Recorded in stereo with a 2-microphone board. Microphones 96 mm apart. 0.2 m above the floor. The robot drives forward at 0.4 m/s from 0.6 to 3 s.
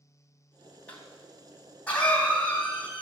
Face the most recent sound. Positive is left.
turn(degrees=15)  # may be behind; listen again after turning